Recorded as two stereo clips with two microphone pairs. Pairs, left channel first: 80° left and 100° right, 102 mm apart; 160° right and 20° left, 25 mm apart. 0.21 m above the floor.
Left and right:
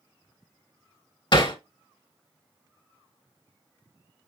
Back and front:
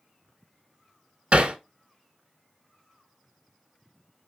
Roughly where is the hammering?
Ahead left.